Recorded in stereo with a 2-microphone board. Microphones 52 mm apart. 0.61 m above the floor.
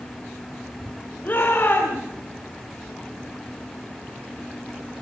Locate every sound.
1.2 s a shout: 35° left (ahead or behind), 4 m